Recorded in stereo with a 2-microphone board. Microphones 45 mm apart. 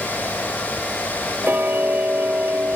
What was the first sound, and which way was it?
Ticking, 45° right (ahead or behind).